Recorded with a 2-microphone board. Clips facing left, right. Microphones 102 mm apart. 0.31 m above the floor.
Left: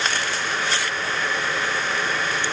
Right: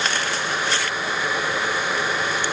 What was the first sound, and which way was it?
Only background noise.